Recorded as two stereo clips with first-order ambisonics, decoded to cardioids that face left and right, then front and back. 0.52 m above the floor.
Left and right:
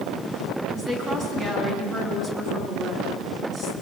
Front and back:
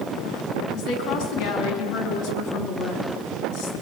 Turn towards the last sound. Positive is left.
turn(degrees=-20)